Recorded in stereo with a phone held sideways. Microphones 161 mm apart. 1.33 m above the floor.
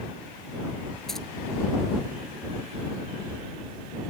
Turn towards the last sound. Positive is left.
turn(degrees=0)  # may be behind; listen again after turning